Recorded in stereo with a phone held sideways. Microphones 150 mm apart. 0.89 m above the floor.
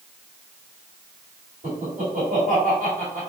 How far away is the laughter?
About 2 m.